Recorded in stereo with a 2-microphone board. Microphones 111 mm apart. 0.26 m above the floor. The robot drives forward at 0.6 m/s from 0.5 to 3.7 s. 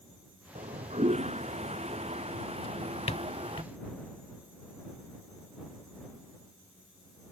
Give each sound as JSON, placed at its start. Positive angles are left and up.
{"t": 0.6, "sound": "a toilet flushing", "side_deg": -85}
{"t": 2.6, "sound": "a drawer", "side_deg": 55}